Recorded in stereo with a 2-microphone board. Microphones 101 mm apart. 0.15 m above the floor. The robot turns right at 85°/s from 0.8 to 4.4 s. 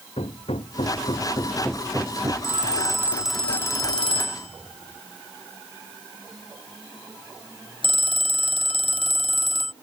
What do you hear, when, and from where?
0.2 s hammering: 85° left; by 2.3 s 140° right
2.4 s a phone ringing: 75° right; by 9.7 s 90° left